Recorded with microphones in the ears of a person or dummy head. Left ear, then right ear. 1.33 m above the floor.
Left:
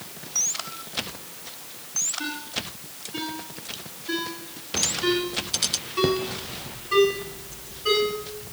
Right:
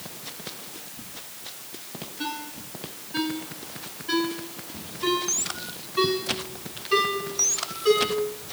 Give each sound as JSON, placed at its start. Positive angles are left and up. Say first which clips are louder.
{"t": 2.2, "sound": "a ringtone", "louder": "left 2 dB", "side_deg": 0, "distance_m": 8.0}